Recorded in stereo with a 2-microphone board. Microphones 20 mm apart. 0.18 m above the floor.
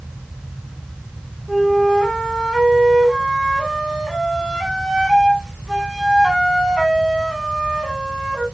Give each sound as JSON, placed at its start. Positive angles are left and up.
{"t": 1.5, "sound": "a flute", "side_deg": -15, "distance_m": 0.9}